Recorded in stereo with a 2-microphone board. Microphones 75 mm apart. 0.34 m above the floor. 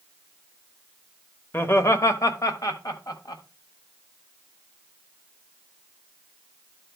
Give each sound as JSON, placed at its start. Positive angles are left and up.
{"t": 1.5, "sound": "laughter", "side_deg": 30, "distance_m": 0.9}